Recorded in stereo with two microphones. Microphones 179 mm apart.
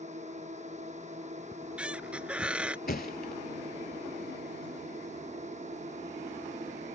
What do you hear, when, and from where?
0.0 s a drone: 40° right (ahead or behind)
1.5 s a squeak: 5° right (ahead or behind)
2.9 s a thud: 55° left (ahead or behind)